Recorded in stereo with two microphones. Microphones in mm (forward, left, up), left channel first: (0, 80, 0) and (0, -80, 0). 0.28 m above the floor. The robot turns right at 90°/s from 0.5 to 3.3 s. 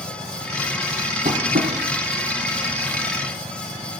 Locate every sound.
1.2 s tapping: 50° right (ahead or behind), 2.5 m; by 1.7 s 90° right, 2.5 m